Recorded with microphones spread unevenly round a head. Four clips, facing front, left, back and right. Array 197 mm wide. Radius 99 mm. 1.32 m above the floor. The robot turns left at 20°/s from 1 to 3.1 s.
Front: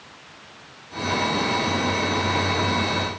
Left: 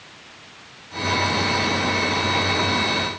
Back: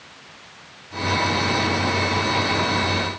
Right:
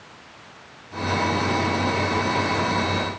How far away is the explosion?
I don't hear an explosion.